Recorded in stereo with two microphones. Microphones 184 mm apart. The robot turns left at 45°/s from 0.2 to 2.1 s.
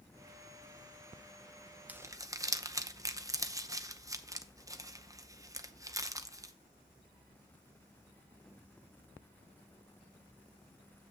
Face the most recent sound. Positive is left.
turn(degrees=-20)  # may be behind; listen again after turning